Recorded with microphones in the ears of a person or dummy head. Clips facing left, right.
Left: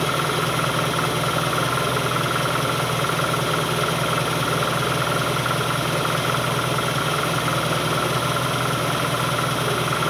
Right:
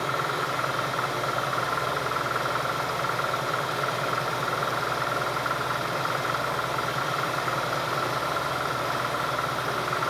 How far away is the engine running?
About 1.0 m.